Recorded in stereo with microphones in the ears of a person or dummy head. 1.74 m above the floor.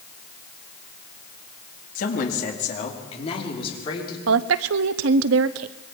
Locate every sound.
1.9 s a woman speaking: 50° left (ahead or behind), 3.5 m; by 4.2 s 25° left (ahead or behind), 6 m
4.3 s a woman speaking: 70° right (ahead or behind), 0.8 m